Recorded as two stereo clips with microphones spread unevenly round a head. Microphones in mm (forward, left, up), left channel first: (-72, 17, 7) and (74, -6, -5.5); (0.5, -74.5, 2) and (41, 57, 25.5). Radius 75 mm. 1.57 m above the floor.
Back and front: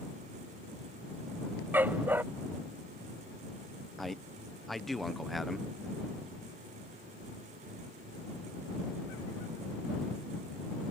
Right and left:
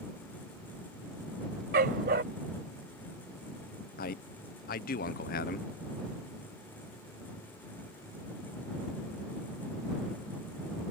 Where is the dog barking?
70° left.